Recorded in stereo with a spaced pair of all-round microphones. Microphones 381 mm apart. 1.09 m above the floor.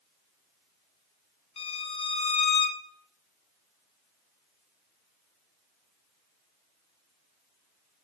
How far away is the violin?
About 0.7 m.